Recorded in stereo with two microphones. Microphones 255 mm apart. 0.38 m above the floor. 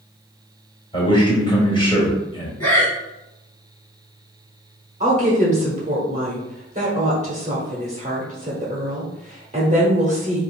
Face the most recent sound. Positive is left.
turn(degrees=-25)  # may be behind; listen again after turning